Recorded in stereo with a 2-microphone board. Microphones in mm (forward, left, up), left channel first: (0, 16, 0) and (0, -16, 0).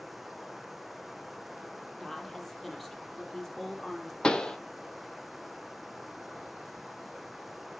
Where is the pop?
25° left (ahead or behind), 0.9 m.